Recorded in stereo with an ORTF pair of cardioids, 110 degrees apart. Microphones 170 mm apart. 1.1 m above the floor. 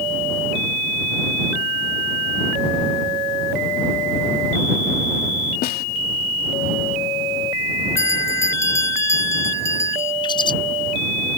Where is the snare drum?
60° left.